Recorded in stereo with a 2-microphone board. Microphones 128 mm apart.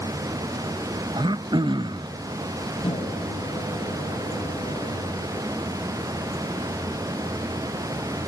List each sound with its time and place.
1.1 s throat clearing: 35° right (ahead or behind), 0.5 m
2.8 s a microwave: 45° left (ahead or behind), 3.5 m